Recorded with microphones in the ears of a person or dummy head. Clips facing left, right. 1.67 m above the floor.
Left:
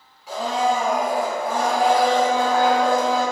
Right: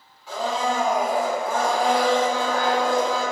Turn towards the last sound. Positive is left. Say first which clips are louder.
# left 3 dB
turn(degrees=5)  # may be behind; listen again after turning